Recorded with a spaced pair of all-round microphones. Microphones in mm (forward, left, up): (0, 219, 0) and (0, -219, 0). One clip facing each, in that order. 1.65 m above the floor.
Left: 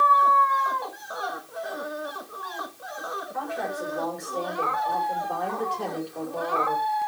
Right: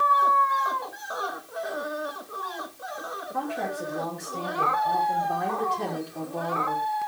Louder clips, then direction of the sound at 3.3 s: Right 2 dB; 50° right (ahead or behind).